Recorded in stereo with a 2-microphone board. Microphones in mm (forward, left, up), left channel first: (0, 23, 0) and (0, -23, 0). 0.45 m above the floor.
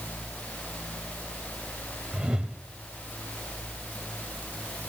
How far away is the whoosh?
About 1.6 m.